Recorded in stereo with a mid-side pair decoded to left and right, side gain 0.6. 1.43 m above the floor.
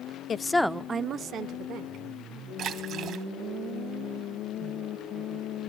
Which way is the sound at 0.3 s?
35° left.